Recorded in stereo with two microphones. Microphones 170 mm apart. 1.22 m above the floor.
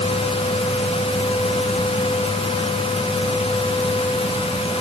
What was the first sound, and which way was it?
Only background noise.